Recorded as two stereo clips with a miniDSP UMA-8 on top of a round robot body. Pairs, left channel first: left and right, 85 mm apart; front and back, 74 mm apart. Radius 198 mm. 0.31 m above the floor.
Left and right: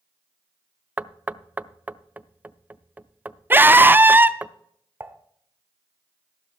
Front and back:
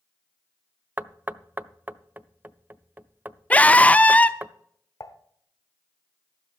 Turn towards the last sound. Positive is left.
turn(degrees=-30)